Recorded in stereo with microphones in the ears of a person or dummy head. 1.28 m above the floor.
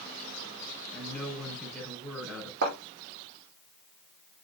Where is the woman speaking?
Centre (ahead or behind), 6 m.